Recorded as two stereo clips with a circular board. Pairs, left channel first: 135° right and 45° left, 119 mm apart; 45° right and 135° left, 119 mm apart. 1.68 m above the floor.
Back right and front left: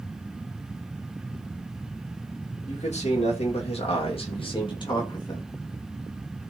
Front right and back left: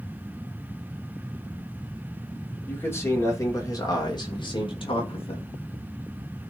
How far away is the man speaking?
About 3 m.